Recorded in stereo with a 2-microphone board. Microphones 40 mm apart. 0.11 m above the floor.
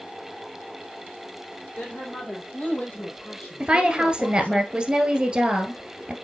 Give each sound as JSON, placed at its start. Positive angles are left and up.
{"t": 1.8, "sound": "a woman speaking", "side_deg": 40, "distance_m": 4.0}
{"t": 3.6, "sound": "a woman speaking", "side_deg": -20, "distance_m": 1.7}